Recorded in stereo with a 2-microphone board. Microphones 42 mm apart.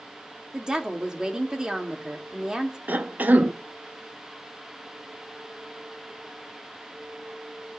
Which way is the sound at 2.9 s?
45° right (ahead or behind).